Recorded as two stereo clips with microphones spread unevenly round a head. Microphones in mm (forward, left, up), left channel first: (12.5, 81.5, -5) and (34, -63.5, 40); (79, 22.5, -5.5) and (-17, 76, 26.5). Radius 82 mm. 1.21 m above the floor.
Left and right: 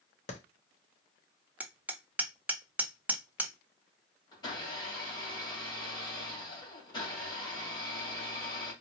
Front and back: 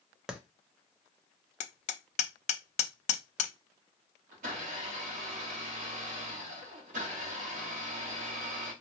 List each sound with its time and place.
0.3 s a clap: 65° left, 0.9 m
1.6 s hammering: 10° right, 0.6 m
4.3 s a blender: 160° left, 2.5 m